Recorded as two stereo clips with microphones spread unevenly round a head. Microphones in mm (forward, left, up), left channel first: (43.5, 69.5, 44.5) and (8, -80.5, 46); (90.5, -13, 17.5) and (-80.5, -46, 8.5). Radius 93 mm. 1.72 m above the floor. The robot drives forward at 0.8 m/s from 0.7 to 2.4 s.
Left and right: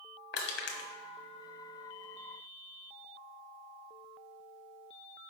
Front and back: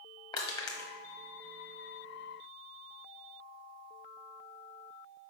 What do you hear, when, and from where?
0.3 s crushing: 75° left, 1.1 m; by 0.9 s 85° left, 1.1 m